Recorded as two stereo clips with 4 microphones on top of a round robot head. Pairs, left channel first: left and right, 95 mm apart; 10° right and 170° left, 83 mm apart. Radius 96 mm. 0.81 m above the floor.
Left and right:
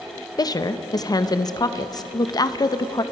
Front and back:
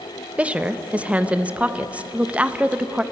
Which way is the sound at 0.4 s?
105° left.